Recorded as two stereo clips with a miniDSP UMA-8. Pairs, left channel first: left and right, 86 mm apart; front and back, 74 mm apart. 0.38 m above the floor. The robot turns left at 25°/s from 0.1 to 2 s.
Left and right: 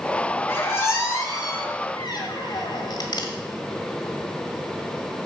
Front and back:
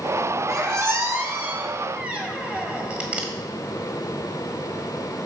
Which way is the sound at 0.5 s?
150° left.